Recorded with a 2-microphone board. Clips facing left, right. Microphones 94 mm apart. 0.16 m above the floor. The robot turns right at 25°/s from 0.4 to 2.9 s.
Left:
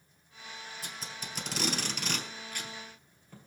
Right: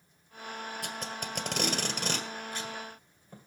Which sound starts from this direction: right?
Tape being pulled, at 0.8 s.